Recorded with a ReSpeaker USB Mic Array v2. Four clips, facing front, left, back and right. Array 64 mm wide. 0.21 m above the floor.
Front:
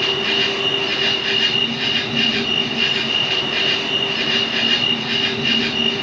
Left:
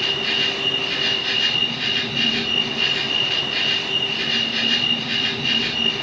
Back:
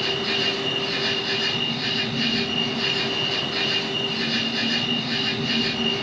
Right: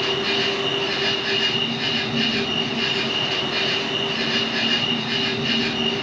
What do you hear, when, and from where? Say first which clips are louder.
0.0 s an insect: right 2 dB, front 5 dB; straight ahead, 2.5 m